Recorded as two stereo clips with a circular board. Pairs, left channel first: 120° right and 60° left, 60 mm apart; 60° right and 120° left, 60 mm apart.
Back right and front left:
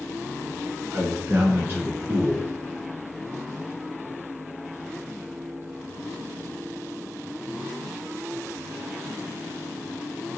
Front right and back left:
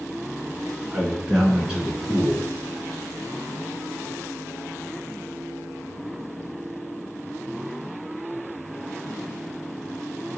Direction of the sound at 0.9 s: 55° left.